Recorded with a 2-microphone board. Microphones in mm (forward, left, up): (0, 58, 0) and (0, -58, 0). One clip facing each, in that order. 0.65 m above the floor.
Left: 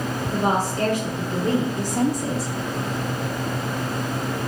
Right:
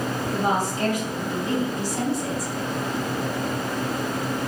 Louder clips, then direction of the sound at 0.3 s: Left 2 dB; 65° left (ahead or behind).